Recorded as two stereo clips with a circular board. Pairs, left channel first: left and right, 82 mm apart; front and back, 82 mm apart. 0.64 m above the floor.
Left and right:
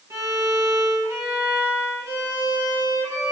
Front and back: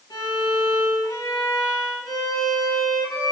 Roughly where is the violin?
Ahead right.